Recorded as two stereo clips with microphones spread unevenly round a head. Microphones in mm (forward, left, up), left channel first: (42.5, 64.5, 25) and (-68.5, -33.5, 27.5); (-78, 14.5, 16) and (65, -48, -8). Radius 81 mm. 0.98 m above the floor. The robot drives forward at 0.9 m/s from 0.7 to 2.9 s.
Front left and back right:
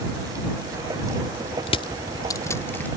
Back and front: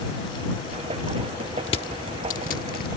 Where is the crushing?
95° left; by 2.9 s 120° left.